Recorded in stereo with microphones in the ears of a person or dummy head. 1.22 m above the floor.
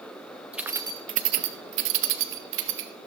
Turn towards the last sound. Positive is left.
turn(degrees=-70)  # may be behind; listen again after turning